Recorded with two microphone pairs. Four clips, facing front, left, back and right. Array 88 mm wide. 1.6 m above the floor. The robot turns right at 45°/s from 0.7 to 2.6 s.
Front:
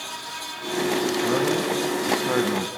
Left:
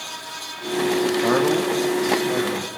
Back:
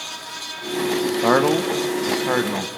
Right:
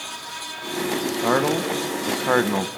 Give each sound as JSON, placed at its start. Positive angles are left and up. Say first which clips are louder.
{"t": 1.2, "sound": "a man speaking", "louder": "right 1 dB, back 9 dB", "azimuth_deg": -165, "distance_m": 1.4}